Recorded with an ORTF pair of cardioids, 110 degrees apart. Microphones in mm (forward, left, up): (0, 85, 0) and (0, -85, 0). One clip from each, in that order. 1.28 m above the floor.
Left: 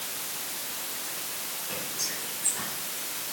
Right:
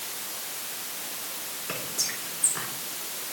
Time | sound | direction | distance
1.7 | whispering | 65° right | 4 m